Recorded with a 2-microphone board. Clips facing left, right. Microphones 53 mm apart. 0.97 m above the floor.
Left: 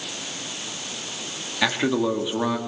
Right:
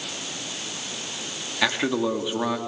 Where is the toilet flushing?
I don't hear a toilet flushing.